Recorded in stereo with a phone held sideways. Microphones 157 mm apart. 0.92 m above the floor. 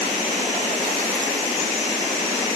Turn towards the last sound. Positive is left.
No sound to turn to.